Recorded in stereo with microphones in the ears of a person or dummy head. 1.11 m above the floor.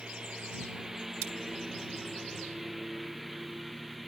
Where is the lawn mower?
5° right (ahead or behind); by 4.1 s centre (ahead or behind).